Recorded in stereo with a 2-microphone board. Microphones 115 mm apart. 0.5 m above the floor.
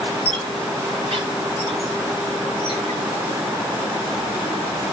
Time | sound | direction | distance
0.2 | a squeak | 65° right (ahead or behind) | 2.5 m